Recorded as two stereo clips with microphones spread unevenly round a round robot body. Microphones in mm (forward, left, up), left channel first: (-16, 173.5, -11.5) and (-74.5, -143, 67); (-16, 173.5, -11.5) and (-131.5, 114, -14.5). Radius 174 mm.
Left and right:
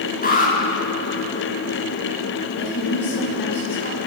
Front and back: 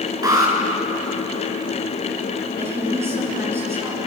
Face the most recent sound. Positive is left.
turn(degrees=135)